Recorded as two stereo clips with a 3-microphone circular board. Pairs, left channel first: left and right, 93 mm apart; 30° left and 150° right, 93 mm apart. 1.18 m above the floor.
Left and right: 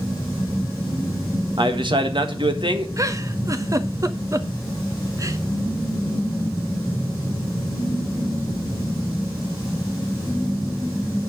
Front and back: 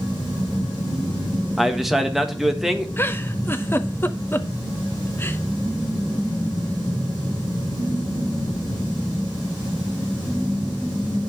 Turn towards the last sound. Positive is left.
turn(degrees=-35)